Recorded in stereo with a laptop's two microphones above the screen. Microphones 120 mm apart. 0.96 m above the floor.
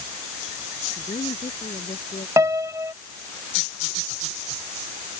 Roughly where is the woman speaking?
Left.